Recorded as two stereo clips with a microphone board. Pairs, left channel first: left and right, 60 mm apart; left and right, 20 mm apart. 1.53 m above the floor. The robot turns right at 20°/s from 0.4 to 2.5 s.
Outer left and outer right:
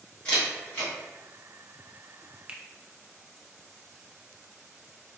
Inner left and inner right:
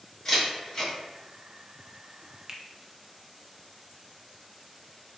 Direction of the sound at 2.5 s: 20° right (ahead or behind).